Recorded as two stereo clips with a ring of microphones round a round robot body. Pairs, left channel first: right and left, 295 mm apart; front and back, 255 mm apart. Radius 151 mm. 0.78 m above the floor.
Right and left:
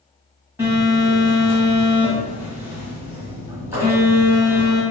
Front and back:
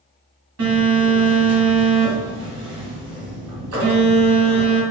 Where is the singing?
I don't hear singing.